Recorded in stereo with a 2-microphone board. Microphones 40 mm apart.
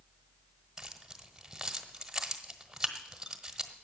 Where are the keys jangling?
10° right (ahead or behind), 1.3 m.